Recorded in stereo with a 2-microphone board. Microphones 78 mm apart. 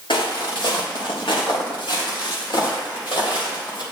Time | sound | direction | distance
0.1 | footsteps | 80° left | 3 m